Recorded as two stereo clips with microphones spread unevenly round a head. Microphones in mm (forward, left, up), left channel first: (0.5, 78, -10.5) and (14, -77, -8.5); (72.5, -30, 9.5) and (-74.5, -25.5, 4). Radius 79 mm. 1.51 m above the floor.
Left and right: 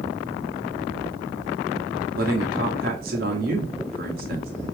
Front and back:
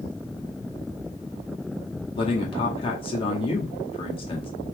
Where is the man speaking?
55° right, 1.4 m.